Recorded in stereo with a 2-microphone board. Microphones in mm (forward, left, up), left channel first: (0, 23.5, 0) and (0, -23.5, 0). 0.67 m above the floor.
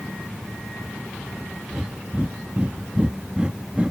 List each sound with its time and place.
1.7 s breathing: 25° right (ahead or behind)